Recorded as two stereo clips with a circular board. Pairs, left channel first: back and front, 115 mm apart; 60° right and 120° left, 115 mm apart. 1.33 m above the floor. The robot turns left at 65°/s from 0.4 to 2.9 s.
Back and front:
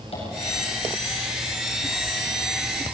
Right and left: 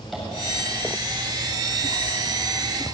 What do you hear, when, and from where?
0.1 s tapping: 150° right, 8.5 m